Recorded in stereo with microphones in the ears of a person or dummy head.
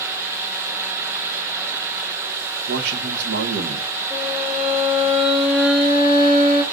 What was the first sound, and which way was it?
A man speaking, 65° right (ahead or behind).